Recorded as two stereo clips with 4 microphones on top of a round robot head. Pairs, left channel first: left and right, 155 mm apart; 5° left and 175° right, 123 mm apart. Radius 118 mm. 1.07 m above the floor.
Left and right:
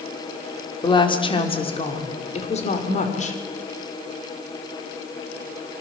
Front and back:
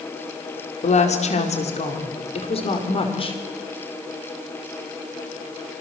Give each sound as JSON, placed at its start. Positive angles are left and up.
{"t": 0.8, "sound": "a woman speaking", "azimuth_deg": 30, "distance_m": 4.0}